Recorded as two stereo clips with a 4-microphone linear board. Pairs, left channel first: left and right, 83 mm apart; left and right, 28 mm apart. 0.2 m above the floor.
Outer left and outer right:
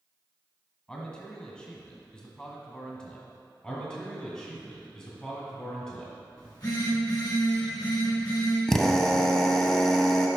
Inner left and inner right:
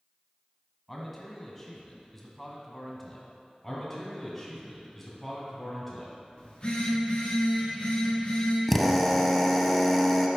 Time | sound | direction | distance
0.9 | a man speaking | 10° left (ahead or behind) | 1.2 m
3.6 | a man speaking | 15° left (ahead or behind) | 1.7 m
6.4 | a phone buzzing | 50° left (ahead or behind) | 2.5 m
8.7 | a drill | 5° left (ahead or behind) | 0.6 m